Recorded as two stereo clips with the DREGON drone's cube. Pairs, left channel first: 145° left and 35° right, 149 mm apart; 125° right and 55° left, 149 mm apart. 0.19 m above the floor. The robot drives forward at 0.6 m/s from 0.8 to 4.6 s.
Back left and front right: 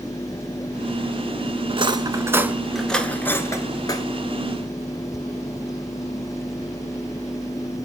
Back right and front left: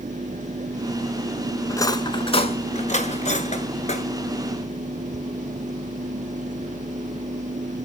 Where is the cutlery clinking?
60° right, 0.8 m; by 4.1 s 155° right, 1.4 m.